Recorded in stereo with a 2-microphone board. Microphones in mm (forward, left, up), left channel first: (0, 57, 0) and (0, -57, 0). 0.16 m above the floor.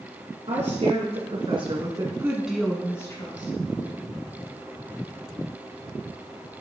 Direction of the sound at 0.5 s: 65° right (ahead or behind).